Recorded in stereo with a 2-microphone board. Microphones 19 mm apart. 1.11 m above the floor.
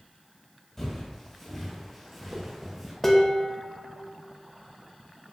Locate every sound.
0.8 s footsteps: 20° left (ahead or behind), 1.3 m; by 2.9 s 15° right (ahead or behind), 1.1 m
3.0 s dishes clattering: 15° left (ahead or behind), 0.5 m